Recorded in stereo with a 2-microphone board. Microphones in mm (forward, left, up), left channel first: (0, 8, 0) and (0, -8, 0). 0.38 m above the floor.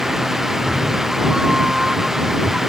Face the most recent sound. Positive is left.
turn(degrees=-40)  # may be behind; listen again after turning